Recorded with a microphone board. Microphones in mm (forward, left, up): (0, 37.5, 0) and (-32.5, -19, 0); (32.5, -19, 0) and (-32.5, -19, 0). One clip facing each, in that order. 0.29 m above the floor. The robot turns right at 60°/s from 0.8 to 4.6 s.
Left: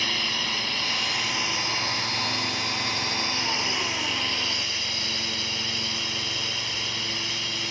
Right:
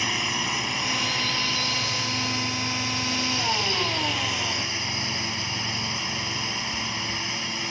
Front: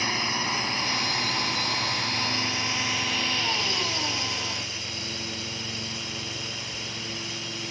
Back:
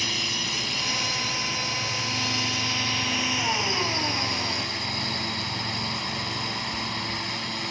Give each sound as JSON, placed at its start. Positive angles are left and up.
{"t": 0.0, "sound": "a drone", "azimuth_deg": -50}